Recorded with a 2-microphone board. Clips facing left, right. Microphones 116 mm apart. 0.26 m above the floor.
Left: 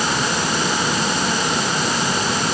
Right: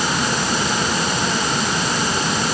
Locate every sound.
Only background noise.